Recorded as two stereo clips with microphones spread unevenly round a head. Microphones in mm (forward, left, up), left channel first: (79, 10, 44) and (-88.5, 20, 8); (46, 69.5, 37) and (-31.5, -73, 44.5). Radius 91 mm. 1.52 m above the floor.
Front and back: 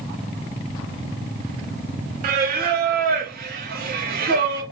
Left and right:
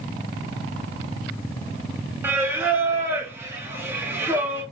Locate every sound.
2.2 s singing: 165° left, 0.7 m